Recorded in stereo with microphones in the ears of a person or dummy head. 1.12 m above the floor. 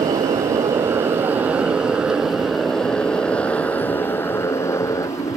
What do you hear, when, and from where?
0.0 s a motorcycle: 20° right (ahead or behind); by 5.4 s 20° left (ahead or behind)